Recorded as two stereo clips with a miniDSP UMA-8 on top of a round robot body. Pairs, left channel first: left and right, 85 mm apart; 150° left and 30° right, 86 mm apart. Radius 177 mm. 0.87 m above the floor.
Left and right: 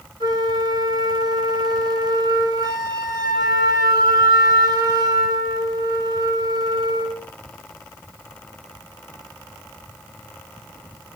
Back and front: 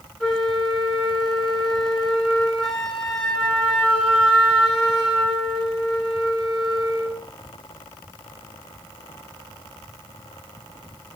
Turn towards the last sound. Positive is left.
turn(degrees=-120)